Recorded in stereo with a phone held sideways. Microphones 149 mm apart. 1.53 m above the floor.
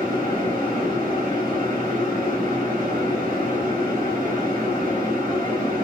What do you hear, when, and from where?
0.0 s a fan: 70° right (ahead or behind), 1.1 m